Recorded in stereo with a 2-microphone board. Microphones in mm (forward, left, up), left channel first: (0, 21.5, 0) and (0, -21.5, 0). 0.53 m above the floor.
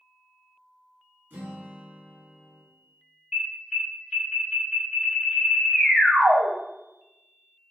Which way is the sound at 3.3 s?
15° right (ahead or behind).